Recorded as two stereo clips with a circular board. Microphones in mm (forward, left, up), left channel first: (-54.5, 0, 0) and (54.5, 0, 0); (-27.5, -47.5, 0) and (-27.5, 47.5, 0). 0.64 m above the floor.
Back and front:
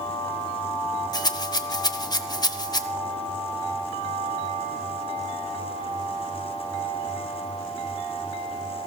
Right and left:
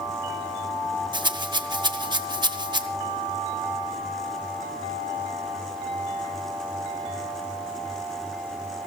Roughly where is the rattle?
Behind left.